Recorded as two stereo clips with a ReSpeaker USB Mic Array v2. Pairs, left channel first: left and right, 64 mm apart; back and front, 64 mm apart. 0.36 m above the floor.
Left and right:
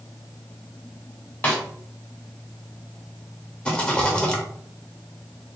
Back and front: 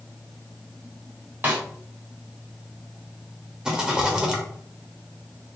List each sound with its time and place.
1.4 s a snare drum: 35° left, 1.1 m
3.6 s a rattle: 55° left, 0.9 m